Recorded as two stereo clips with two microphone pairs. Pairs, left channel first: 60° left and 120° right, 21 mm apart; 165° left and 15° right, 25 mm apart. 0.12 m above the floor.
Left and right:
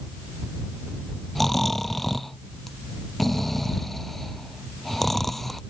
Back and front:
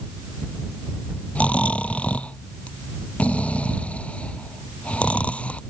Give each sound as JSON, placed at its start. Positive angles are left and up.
{"t": 1.4, "sound": "snoring", "azimuth_deg": 145}